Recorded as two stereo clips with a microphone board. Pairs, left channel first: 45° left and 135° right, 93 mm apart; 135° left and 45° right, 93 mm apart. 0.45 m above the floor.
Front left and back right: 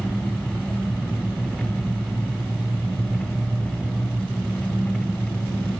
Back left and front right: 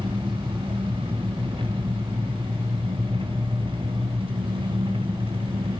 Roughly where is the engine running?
Ahead right.